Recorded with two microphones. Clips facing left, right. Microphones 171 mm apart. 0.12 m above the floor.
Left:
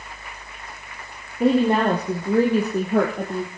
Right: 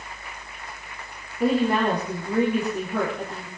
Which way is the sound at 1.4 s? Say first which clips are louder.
Left 3 dB; 25° left (ahead or behind).